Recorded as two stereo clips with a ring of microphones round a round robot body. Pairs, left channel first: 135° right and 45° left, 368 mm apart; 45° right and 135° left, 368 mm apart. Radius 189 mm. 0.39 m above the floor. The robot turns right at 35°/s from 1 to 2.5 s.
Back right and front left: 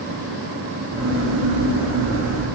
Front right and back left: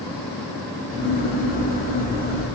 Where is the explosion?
I don't hear an explosion.